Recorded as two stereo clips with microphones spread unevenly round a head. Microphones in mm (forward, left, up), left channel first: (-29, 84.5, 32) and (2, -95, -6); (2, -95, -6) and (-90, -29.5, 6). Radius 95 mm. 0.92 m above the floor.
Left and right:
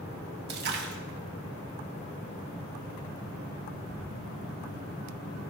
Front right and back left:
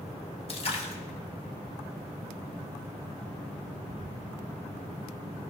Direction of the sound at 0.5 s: 60° right.